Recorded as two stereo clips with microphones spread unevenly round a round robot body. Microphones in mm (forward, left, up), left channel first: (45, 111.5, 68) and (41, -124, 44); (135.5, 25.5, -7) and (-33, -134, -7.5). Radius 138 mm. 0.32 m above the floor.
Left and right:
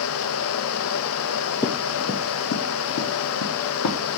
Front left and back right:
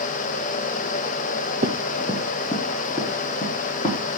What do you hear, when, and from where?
1.6 s running footsteps: 160° left, 0.5 m; by 4.2 s 110° left, 1.9 m